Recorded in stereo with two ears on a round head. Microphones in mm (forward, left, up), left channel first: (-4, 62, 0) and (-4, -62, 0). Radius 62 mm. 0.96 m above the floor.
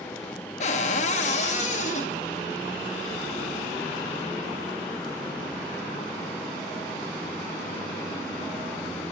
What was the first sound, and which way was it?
A cupboard door, 55° left (ahead or behind).